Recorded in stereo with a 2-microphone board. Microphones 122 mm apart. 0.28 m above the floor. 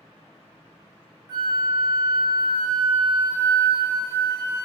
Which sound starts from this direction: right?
A flute, at 1.3 s.